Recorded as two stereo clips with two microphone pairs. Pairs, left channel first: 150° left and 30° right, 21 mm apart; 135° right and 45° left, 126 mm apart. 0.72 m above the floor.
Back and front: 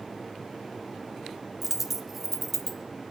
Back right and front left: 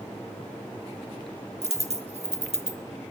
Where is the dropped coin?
45° left, 0.8 m.